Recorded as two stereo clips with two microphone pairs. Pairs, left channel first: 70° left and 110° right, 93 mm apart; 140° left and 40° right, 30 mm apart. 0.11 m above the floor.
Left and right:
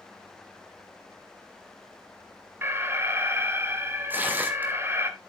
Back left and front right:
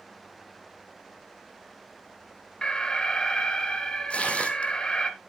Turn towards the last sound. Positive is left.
turn(degrees=-175)